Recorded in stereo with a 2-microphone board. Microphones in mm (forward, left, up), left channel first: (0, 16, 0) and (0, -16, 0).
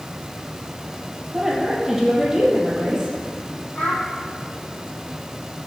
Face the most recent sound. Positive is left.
turn(degrees=55)  # may be behind; listen again after turning